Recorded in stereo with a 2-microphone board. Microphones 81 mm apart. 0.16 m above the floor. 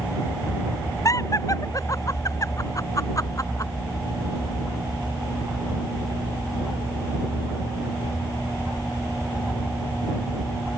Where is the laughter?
40° left (ahead or behind).